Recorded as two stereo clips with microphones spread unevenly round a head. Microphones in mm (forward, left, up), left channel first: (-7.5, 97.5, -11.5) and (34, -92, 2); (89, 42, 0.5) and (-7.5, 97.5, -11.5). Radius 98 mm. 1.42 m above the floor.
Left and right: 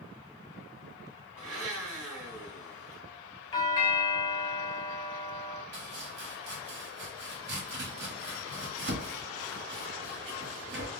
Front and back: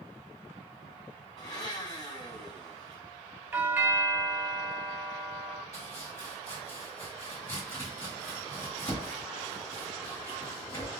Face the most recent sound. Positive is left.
turn(degrees=-95)